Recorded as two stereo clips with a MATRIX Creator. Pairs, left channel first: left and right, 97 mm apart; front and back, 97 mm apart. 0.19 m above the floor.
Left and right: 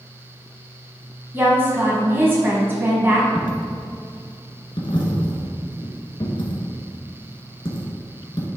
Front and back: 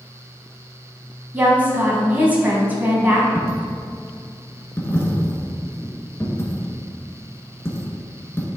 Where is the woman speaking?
130° right, 1.4 m.